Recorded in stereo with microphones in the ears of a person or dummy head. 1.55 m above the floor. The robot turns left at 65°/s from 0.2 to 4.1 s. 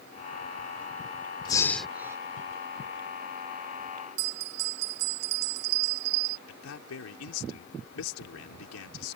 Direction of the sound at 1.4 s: 25° left.